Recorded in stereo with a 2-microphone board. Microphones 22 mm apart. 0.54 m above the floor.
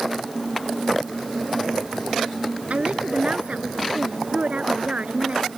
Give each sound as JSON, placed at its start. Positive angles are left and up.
{"t": 2.7, "sound": "a woman speaking", "side_deg": -80}